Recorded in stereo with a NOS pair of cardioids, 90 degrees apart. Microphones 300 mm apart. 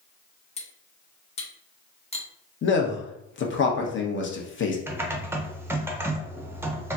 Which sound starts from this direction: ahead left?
A man speaking, at 2.6 s.